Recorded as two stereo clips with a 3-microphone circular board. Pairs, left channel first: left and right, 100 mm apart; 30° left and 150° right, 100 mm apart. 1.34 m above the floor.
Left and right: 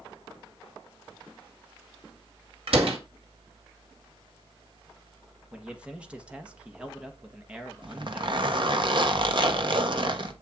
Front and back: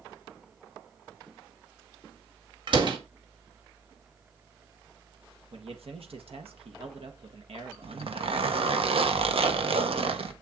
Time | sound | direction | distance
2.7 | a door slam | 110° right | 1.9 m
5.5 | a man speaking | 170° right | 1.4 m
7.8 | a zipper | 125° right | 1.2 m